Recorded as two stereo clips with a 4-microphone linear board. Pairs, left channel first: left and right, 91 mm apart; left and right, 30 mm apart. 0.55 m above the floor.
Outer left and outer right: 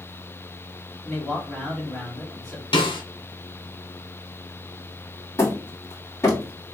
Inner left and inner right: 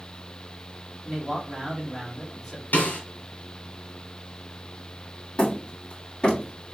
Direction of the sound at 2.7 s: 70° left (ahead or behind).